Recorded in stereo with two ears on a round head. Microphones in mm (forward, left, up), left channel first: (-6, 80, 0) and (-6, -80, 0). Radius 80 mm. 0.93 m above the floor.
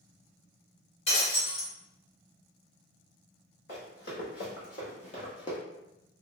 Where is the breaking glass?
35° left (ahead or behind), 1.4 m.